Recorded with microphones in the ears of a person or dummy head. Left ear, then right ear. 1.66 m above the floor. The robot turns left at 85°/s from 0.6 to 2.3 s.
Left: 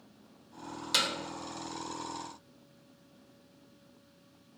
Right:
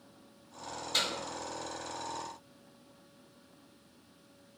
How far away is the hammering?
About 0.8 m.